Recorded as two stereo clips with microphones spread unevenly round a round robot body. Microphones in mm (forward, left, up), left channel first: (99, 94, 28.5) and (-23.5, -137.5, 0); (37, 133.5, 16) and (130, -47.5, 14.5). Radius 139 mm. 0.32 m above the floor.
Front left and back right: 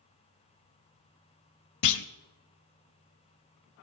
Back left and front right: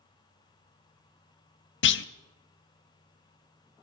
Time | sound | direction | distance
1.8 | a clunk | 90° left | 0.5 m